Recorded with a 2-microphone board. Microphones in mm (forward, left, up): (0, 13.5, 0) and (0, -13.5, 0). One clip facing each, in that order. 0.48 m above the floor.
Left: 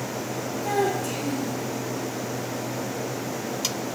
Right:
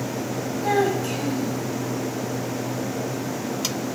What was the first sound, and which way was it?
A child speaking, 30° right (ahead or behind).